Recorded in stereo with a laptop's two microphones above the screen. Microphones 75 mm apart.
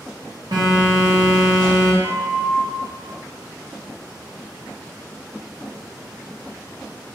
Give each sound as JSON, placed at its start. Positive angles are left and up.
{"t": 0.5, "sound": "a phone buzzing", "side_deg": -65, "distance_m": 1.1}
{"t": 2.0, "sound": "a flute", "side_deg": 25, "distance_m": 0.5}